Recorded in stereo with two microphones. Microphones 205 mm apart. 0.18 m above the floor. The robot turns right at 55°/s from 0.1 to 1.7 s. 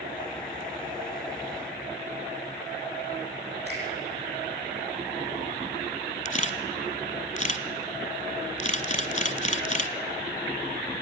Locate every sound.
3.7 s a finger snap: 60° right (ahead or behind), 6.5 m
6.2 s a camera shutter: 40° left (ahead or behind), 1.0 m